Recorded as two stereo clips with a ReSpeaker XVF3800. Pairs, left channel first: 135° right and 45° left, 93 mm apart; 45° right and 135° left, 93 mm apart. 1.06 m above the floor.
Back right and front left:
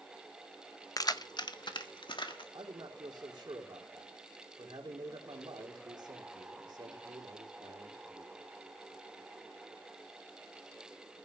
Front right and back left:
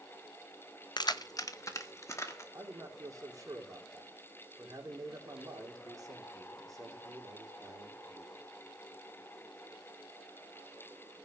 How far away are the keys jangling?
About 0.7 m.